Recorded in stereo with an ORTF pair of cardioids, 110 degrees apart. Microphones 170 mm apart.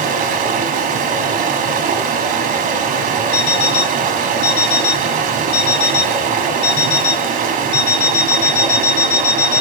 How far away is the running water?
About 0.9 m.